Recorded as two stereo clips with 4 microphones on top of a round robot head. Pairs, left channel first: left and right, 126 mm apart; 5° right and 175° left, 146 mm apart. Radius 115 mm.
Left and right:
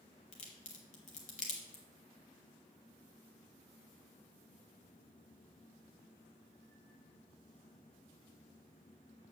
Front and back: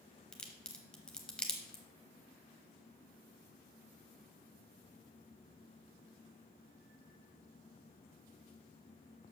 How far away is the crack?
About 1.0 m.